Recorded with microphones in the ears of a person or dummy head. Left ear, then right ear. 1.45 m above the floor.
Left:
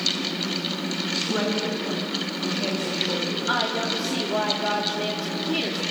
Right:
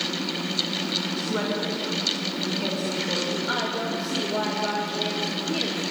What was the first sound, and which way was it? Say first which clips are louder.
A woman speaking: left 2 dB; 5° right (ahead or behind).